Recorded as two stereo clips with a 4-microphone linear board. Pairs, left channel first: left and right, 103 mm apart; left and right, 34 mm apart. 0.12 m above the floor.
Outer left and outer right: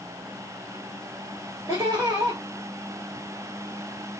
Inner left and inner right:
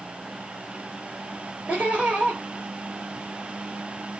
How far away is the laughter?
About 2.5 m.